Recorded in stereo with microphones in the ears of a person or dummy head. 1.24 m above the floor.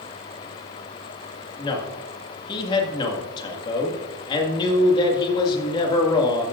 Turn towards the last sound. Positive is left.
turn(degrees=25)  # may be behind; listen again after turning